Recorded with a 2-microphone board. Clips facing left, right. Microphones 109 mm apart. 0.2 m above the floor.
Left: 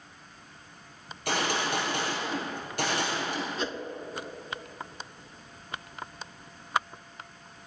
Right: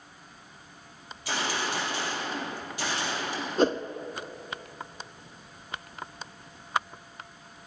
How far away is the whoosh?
About 0.6 m.